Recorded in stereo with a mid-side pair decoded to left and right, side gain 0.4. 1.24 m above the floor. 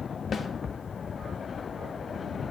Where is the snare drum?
55° left, 1.1 m.